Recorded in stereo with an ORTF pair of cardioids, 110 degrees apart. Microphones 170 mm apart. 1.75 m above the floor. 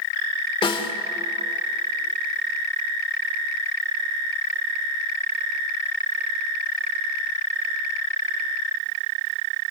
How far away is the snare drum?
About 2.5 m.